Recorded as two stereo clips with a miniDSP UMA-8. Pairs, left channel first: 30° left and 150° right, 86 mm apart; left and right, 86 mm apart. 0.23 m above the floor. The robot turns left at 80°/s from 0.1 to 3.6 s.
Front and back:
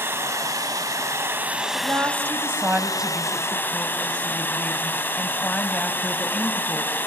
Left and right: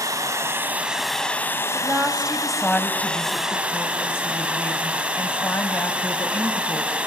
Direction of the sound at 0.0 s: 100° right.